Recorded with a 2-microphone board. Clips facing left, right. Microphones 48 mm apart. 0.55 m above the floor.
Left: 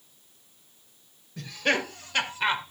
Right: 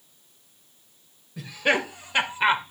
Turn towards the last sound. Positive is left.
turn(degrees=-25)  # may be behind; listen again after turning